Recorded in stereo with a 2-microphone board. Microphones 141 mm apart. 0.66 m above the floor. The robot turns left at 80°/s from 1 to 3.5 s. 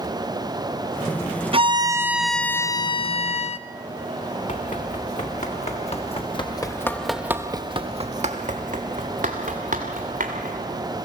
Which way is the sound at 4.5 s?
65° left (ahead or behind).